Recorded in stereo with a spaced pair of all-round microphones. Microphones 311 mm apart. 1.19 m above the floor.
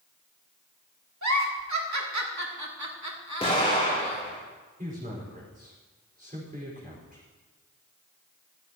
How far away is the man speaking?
About 4.5 m.